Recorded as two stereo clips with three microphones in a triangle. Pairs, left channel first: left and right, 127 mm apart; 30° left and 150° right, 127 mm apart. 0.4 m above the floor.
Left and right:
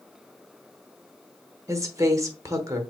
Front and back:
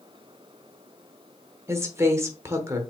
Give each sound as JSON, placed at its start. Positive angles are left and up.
{"t": 1.7, "sound": "a woman speaking", "azimuth_deg": -115, "distance_m": 0.9}